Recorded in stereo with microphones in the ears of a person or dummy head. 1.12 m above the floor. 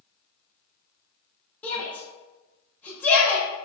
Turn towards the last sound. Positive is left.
turn(degrees=10)  # may be behind; listen again after turning